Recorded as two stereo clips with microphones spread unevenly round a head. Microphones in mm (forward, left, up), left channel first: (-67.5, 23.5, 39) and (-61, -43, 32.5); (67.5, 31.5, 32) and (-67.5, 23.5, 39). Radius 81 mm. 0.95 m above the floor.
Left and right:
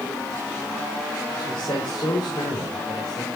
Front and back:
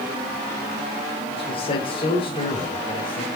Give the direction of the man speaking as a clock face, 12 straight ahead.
10 o'clock.